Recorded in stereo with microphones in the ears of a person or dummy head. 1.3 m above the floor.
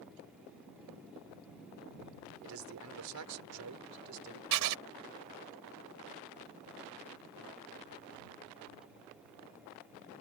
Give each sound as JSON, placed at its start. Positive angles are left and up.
{"t": 2.4, "sound": "a man speaking", "side_deg": -70}
{"t": 4.5, "sound": "writing", "side_deg": -75}